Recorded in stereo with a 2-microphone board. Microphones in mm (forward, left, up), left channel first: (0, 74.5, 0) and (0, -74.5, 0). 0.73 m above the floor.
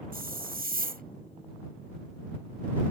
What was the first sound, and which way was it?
A hiss, 80° right.